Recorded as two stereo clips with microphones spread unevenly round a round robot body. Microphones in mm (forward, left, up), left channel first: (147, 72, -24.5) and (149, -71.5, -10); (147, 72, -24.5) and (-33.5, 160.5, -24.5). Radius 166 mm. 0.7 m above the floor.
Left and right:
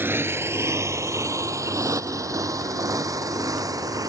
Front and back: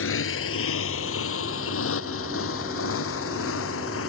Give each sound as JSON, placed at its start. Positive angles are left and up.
{"t": 0.0, "sound": "a motorcycle", "azimuth_deg": -15}